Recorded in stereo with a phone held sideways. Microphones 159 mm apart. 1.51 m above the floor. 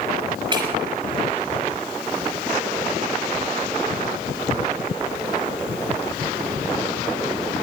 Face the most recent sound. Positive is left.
turn(degrees=-30)  # may be behind; listen again after turning